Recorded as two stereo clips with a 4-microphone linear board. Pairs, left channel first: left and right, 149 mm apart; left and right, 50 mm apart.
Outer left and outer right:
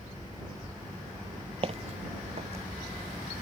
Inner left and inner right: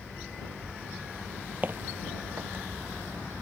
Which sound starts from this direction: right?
Footsteps, at 1.6 s.